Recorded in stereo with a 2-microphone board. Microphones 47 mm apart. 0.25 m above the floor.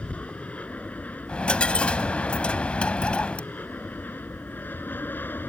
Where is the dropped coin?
25° left (ahead or behind).